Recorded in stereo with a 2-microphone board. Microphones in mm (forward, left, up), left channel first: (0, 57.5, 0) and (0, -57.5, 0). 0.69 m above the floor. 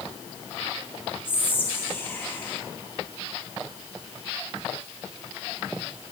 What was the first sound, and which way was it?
Whispering, 15° left (ahead or behind).